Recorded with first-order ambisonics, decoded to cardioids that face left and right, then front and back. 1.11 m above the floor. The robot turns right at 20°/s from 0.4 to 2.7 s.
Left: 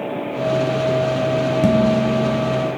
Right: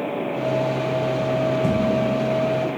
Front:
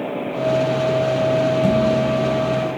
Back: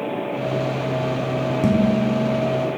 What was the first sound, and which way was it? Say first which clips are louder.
Dishes clattering: left 4 dB, front 3 dB; 110° left.